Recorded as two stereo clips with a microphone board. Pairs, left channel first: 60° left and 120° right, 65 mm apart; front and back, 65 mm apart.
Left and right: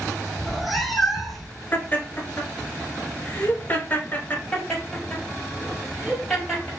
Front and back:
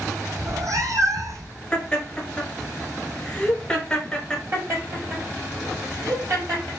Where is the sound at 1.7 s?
60° left, 1.1 m.